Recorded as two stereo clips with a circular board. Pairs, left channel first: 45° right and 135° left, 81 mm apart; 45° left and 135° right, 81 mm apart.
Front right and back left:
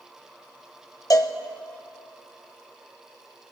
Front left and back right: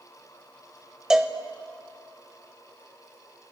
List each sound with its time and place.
1.1 s a cowbell: 55° right, 0.6 m